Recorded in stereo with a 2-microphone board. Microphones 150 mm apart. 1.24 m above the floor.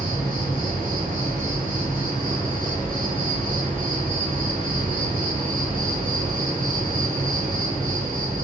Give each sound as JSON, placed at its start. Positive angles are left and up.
{"t": 0.0, "sound": "an insect", "side_deg": -70, "distance_m": 1.5}